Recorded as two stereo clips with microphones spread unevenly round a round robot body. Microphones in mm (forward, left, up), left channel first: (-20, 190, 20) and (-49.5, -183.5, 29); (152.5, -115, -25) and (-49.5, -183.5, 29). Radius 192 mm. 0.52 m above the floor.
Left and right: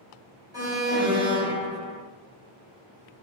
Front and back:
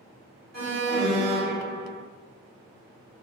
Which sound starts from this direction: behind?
An alarm, at 0.5 s.